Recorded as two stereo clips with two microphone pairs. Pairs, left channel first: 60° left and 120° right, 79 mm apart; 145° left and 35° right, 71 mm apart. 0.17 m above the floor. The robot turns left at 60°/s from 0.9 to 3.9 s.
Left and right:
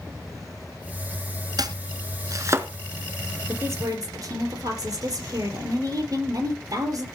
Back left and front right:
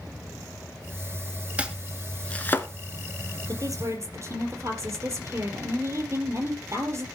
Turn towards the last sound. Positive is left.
turn(degrees=-75)